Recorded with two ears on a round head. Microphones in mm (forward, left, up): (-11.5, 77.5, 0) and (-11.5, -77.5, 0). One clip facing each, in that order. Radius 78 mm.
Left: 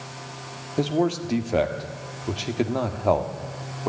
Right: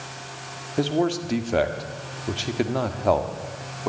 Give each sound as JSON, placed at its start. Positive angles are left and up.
{"t": 0.8, "sound": "a man speaking", "side_deg": 0, "distance_m": 1.6}